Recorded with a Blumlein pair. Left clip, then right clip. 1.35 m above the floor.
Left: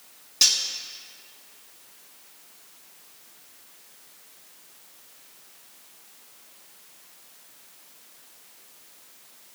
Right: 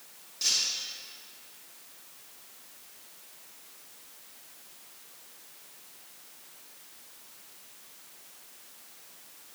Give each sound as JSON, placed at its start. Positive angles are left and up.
{"t": 0.4, "sound": "cutlery clinking", "azimuth_deg": 55, "distance_m": 1.5}